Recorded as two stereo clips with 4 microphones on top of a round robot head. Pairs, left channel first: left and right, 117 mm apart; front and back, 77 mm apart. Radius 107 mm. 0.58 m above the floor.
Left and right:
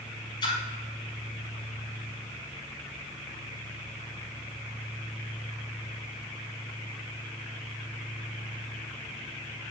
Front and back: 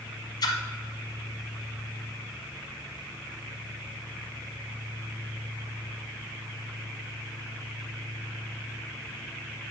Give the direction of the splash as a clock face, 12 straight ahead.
11 o'clock.